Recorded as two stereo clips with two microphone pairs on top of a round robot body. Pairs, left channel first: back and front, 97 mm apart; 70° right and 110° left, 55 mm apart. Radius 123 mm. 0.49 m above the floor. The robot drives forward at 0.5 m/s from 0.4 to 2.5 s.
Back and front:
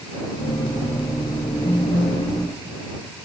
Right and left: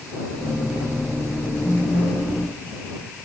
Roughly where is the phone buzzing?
Behind right.